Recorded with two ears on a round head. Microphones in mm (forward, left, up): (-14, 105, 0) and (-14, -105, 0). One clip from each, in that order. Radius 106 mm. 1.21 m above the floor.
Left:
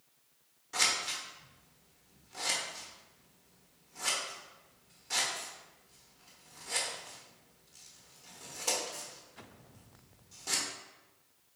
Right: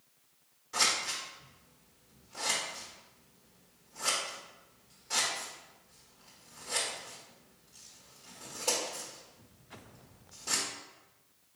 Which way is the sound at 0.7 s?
10° left (ahead or behind).